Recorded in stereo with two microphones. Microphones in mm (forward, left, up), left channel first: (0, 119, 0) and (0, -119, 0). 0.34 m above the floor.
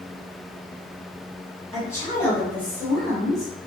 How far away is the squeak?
No squeak in this recording.